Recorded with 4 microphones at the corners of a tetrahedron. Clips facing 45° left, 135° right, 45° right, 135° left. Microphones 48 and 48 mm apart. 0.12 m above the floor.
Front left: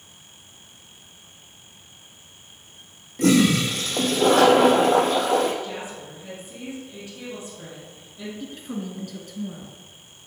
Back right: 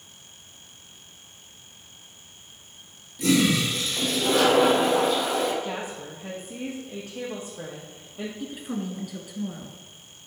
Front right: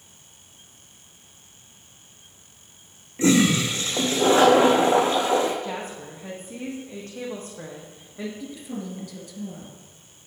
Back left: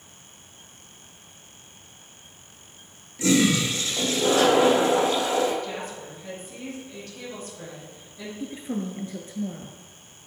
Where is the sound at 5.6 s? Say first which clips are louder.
Back right 1 dB, front right 1 dB; 95° right, 4 m.